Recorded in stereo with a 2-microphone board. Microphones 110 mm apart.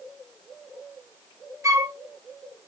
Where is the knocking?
I don't hear knocking.